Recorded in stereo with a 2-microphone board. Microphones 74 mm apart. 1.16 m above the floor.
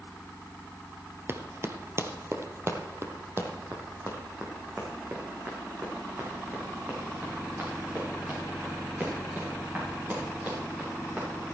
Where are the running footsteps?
35° right (ahead or behind), 1.4 m; by 11.2 s 25° right (ahead or behind), 9.5 m.